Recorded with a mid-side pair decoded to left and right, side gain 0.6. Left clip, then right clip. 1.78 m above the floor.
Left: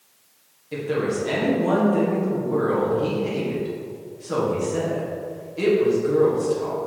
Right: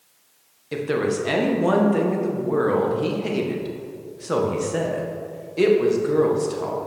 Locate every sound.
0.7 s a woman speaking: 40° right, 1.6 m